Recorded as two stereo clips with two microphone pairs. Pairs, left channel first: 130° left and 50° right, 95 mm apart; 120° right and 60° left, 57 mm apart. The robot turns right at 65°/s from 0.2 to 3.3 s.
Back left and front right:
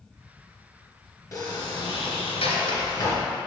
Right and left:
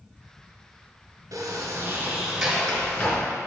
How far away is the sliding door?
About 1.4 m.